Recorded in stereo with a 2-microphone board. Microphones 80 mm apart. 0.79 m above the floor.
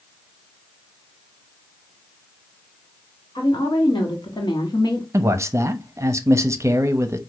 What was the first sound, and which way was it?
A woman speaking, 60° left (ahead or behind).